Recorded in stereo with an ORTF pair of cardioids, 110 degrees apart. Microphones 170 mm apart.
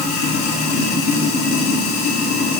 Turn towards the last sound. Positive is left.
turn(degrees=65)